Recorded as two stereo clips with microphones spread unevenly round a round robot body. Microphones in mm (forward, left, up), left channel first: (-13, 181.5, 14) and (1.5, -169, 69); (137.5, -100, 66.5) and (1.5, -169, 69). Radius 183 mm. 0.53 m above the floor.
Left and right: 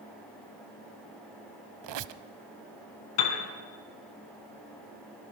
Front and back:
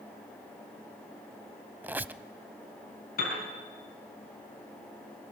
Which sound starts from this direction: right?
A squeak, at 1.8 s.